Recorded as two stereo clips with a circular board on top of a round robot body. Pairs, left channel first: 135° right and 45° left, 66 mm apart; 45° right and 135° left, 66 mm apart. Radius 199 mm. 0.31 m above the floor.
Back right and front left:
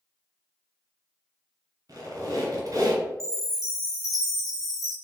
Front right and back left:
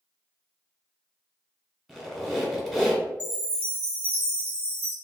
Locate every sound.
1.9 s a squeak: 45° left, 1.2 m
3.2 s a chime: 165° right, 1.1 m